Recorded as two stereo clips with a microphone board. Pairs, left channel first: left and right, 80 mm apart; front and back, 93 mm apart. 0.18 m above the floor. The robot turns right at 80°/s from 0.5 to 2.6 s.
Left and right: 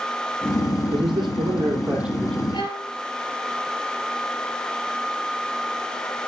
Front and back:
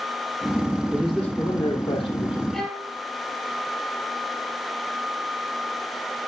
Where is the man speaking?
105° right, 5.5 m; by 2.4 s 20° left, 5.5 m.